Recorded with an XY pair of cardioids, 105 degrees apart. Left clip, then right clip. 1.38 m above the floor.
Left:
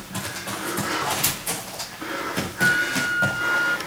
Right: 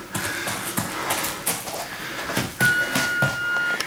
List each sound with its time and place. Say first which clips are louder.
0.1 s running footsteps: right 4 dB; 35° right, 5 m; by 3.4 s 40° right, 7.5 m
2.6 s a flute: even; straight ahead, 0.5 m